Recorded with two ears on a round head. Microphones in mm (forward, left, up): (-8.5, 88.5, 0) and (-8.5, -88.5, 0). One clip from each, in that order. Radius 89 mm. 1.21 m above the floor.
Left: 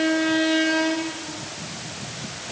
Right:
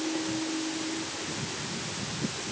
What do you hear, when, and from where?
Only background noise.